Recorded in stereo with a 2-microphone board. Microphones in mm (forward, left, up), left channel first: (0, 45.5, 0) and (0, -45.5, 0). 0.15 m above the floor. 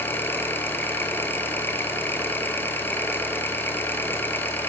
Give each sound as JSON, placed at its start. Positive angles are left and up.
{"t": 0.0, "sound": "an engine running", "side_deg": 25, "distance_m": 0.8}